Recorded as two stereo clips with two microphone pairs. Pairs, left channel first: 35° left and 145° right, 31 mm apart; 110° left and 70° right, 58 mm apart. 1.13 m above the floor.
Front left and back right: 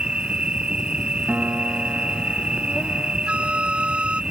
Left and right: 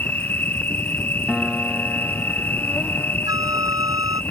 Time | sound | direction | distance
0.0 | an insect | 165° left | ?
1.3 | a piano | 160° right | ?
3.3 | a flute | 90° right | ?